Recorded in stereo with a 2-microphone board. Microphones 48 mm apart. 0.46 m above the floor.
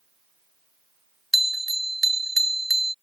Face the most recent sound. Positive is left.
turn(degrees=-5)  # may be behind; listen again after turning